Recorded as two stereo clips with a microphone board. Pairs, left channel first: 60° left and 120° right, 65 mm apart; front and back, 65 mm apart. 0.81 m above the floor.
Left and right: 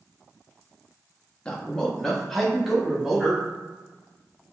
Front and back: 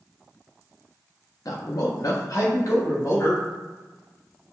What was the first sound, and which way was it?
A man speaking, 10° right.